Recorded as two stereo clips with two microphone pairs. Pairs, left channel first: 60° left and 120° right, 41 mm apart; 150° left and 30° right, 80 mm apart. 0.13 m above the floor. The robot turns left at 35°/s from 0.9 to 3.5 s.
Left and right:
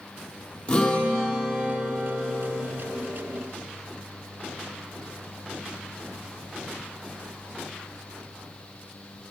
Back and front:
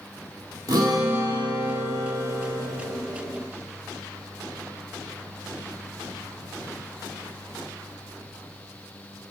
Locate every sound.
0.7 s a guitar: straight ahead, 3 m; by 2.6 s 60° right, 3 m